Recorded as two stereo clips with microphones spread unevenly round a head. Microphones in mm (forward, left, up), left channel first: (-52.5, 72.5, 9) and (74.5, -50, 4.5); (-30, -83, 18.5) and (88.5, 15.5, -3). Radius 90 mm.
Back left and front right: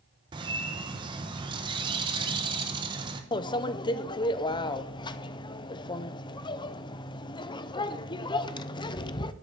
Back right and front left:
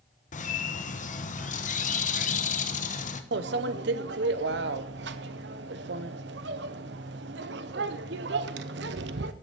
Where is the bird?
110° right, 1.1 m.